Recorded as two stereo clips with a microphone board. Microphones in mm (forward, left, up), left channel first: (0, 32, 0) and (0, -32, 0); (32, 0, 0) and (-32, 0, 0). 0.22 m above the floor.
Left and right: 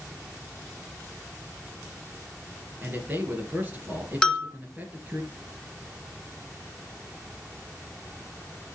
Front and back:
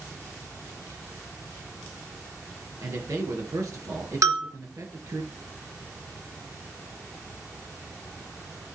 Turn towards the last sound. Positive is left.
turn(degrees=165)